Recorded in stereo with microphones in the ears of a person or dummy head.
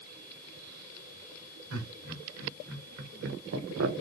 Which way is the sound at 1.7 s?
65° right (ahead or behind).